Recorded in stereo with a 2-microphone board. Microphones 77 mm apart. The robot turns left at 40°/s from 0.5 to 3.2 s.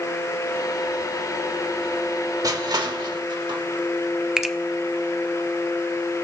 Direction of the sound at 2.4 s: 55° right (ahead or behind).